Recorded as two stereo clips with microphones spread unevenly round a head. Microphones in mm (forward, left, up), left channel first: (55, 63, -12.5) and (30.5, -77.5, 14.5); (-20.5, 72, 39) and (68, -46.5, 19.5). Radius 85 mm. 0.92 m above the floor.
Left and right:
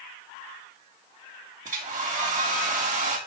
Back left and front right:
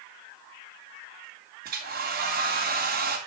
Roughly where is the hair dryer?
Ahead right.